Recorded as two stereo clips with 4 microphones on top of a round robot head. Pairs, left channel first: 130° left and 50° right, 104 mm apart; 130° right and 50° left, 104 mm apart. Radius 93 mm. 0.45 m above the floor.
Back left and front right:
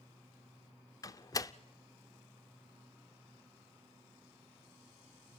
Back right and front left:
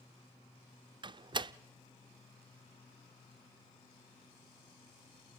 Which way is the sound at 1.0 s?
80° left.